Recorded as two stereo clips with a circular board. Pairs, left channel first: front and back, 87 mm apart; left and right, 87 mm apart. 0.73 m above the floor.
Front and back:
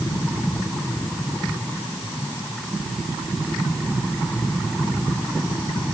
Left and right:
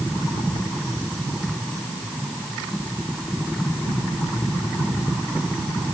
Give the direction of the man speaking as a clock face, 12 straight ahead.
No man speaking in this recording.